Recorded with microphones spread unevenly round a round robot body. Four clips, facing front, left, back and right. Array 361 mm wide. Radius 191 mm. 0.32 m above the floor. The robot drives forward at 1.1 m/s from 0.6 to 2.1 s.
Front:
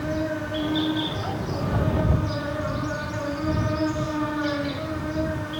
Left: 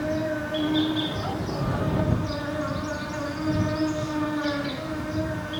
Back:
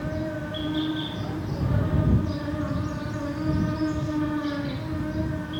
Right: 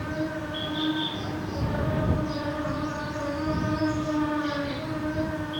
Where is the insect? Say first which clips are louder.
Left 4 dB, front 3 dB; 95° left, 3.5 m; by 5.6 s 120° left, 4 m.